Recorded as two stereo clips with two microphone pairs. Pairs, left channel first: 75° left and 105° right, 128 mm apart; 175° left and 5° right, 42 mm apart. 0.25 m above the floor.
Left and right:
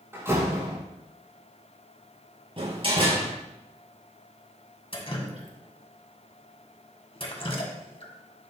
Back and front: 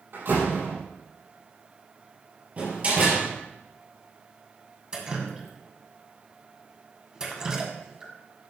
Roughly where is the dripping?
Ahead left.